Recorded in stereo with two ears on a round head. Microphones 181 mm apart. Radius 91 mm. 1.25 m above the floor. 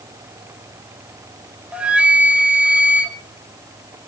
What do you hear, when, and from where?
1.7 s a flute: 5° right (ahead or behind), 1.8 m